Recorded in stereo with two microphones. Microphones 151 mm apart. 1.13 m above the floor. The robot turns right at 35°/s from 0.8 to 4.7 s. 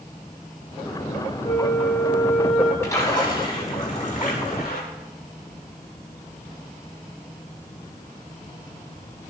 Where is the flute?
135° left, 1.9 m; by 2.7 s straight behind, 1.9 m.